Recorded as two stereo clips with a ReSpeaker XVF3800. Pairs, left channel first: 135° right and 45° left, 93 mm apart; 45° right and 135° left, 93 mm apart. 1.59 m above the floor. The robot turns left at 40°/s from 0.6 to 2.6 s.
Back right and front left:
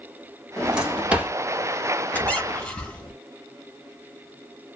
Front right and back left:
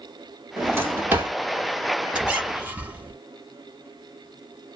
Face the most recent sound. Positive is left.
turn(degrees=170)